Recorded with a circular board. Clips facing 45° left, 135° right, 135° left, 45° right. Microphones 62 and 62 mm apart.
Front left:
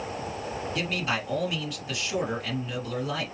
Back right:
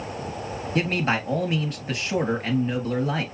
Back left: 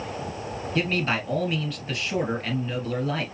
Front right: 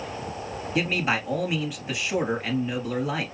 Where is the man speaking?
115° right, 2.0 m.